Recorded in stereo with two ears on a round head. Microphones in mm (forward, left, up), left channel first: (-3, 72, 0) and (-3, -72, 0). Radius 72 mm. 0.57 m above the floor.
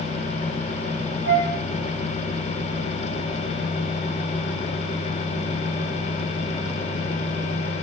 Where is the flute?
80° left, 1.7 m.